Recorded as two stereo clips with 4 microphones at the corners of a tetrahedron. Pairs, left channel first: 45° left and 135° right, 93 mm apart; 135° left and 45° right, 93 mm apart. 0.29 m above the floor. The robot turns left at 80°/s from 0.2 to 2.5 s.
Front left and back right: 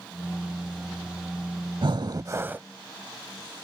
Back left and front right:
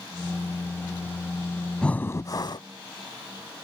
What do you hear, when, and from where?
1.8 s breathing: 145° right; by 2.6 s 160° left